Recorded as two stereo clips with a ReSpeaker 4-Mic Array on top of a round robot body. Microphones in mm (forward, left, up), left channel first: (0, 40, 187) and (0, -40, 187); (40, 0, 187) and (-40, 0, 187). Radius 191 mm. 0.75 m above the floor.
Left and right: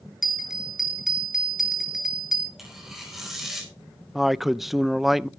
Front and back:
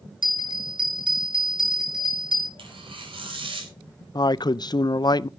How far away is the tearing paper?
About 4.5 m.